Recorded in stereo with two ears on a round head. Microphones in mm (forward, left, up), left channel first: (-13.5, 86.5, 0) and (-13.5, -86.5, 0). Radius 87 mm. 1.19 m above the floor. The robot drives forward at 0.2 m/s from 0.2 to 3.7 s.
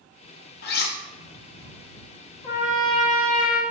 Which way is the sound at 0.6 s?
55° left (ahead or behind).